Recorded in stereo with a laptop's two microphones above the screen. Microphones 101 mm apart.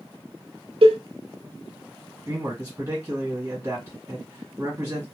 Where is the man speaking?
30° right (ahead or behind), 1.4 m.